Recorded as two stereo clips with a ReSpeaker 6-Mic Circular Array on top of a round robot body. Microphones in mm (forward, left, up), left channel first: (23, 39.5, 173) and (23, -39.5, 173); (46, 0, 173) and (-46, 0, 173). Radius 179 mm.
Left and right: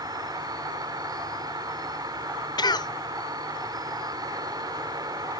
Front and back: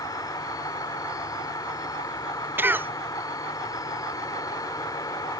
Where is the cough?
110° left.